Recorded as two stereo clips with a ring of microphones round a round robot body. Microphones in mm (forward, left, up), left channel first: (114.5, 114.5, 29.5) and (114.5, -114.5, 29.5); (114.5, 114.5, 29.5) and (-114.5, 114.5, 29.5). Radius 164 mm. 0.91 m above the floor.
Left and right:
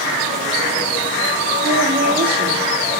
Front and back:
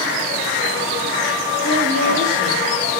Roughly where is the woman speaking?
Behind right.